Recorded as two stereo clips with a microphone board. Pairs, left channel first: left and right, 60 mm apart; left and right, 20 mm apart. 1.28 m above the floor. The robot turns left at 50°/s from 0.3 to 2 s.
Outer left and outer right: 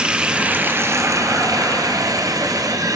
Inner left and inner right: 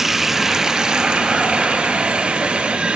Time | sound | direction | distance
0.0 | running water | 15° right | 0.8 m